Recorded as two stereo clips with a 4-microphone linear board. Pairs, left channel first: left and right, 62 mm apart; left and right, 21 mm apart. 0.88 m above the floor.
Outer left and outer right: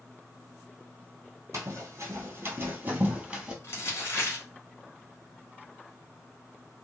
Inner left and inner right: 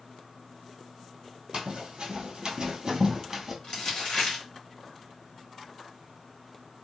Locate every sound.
1.5 s running footsteps: 50° right (ahead or behind), 1.3 m; by 3.5 s 15° right (ahead or behind), 1.0 m
3.6 s crumpling: 40° left (ahead or behind), 1.3 m